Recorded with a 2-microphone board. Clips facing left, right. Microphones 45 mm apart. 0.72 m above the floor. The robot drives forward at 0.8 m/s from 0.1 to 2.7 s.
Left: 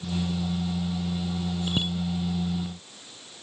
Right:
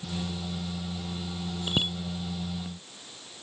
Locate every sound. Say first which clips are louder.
1.7 s a bicycle bell: right 2 dB; 20° right (ahead or behind)